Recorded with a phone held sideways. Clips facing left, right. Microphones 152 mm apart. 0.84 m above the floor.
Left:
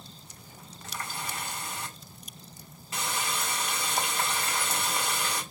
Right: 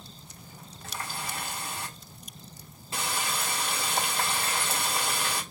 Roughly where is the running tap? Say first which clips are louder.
Right 1 dB; right.